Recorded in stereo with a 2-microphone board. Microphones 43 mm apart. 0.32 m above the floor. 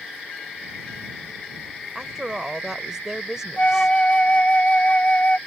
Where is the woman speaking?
15° right (ahead or behind).